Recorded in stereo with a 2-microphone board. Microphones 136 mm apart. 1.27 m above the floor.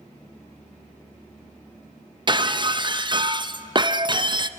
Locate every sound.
2.3 s breaking glass: 35° right (ahead or behind), 0.6 m